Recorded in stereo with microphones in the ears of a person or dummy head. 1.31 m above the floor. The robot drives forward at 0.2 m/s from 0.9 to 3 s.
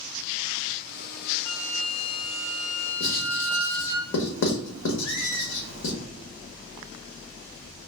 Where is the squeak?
30° left (ahead or behind), 2.0 m.